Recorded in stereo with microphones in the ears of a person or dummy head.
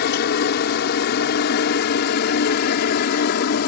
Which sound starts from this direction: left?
A helicopter, at 0.0 s.